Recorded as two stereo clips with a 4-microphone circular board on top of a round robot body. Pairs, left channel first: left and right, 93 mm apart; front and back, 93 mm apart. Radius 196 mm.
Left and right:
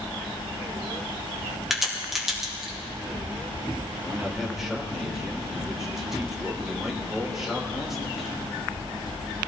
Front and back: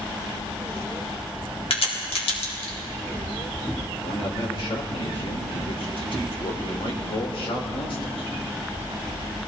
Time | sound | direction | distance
1.7 | a crack | 5° right | 3.5 m
4.0 | a man speaking | 5° right | 3 m